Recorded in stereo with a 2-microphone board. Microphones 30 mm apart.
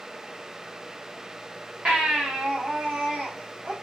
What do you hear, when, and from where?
1.9 s a baby crying: 45° right (ahead or behind), 9 m